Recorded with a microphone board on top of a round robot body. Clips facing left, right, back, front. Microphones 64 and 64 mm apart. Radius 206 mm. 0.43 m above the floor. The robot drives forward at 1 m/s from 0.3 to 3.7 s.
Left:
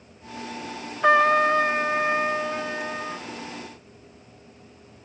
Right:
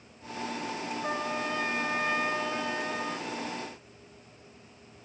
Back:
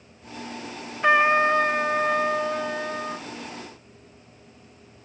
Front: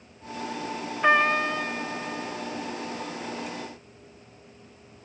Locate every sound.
1.0 s a trumpet: 85° left; by 3.3 s 165° left